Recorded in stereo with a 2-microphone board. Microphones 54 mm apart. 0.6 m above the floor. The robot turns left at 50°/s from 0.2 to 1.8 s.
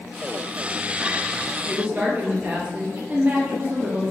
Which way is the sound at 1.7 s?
35° right (ahead or behind).